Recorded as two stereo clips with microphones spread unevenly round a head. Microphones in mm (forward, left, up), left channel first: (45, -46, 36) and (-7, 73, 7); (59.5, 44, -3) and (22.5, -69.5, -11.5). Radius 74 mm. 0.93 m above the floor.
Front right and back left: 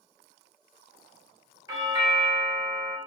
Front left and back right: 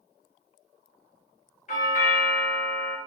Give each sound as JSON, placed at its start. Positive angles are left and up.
{"t": 1.7, "sound": "a doorbell", "azimuth_deg": 65, "distance_m": 2.5}